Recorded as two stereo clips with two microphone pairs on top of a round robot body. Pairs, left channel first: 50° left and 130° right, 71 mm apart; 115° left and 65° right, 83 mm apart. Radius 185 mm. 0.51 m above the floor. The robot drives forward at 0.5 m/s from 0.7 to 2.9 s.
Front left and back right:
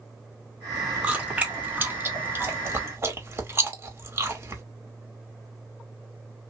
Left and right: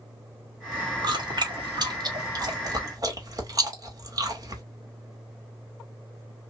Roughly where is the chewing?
Ahead right.